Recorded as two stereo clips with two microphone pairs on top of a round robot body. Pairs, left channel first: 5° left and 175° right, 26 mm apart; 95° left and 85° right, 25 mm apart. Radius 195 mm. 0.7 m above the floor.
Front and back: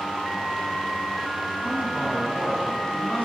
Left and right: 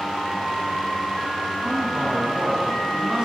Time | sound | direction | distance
1.6 | a man speaking | 30° right | 9.5 m